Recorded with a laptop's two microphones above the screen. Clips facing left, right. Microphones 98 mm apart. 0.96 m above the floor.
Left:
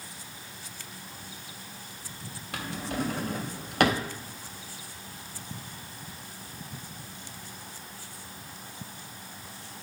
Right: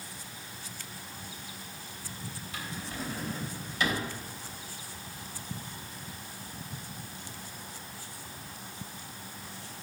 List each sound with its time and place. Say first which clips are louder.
2.5 s a drawer: left 8 dB; 70° left (ahead or behind), 0.6 m